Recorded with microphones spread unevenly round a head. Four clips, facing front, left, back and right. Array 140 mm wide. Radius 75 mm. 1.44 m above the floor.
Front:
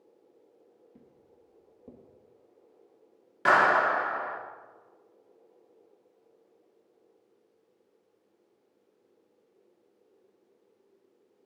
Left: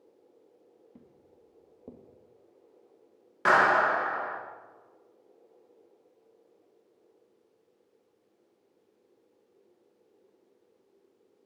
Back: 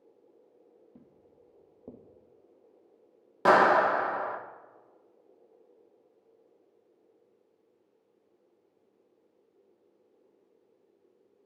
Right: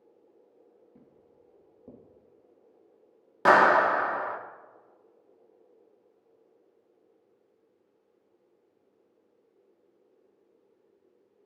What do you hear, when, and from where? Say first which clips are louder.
0.9 s footsteps: left 1 dB, back 1 dB; 130° left, 2 m; by 2.0 s 145° left, 2.5 m
3.5 s a clap: right 3 dB, back 2 dB; 165° right, 1.3 m